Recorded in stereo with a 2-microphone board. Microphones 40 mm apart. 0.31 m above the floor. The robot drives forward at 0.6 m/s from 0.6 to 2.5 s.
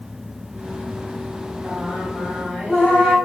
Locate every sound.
1.6 s singing: 10° right (ahead or behind), 1.3 m